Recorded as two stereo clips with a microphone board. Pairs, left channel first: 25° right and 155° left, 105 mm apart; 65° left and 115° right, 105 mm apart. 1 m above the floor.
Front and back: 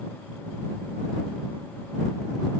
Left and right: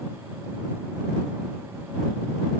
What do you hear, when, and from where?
Only background noise.